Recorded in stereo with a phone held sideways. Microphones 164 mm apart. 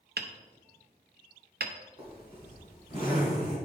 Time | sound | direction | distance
0.2 | hammering | 80° right | 0.7 m
2.0 | a zipper | 35° right (ahead or behind) | 3.5 m